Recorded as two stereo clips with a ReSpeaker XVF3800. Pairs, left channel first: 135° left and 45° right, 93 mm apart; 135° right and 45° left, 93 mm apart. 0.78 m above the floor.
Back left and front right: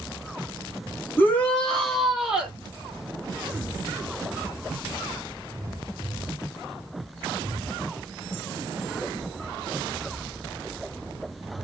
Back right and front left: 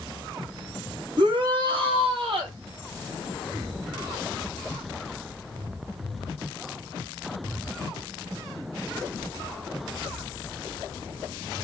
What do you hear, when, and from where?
1.2 s a shout: 70° left, 2 m; by 2.6 s 35° left, 3 m